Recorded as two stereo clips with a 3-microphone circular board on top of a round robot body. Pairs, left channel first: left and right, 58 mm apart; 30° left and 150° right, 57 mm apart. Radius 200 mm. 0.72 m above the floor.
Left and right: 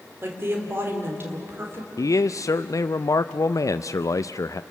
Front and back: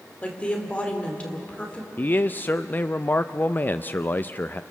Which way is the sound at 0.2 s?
40° right.